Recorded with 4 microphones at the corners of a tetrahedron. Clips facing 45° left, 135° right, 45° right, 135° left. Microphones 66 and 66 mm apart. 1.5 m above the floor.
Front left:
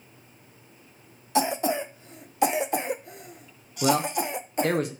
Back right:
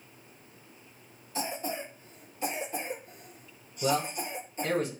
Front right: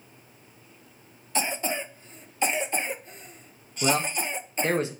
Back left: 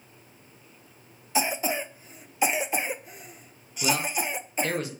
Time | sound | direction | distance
1.4 | a cough | 55° left | 0.8 m
3.8 | a man speaking | 20° left | 1.2 m